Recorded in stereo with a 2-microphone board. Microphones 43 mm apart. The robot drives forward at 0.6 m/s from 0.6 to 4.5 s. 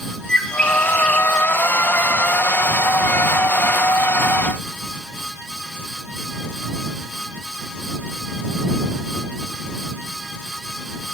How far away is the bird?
About 0.9 m.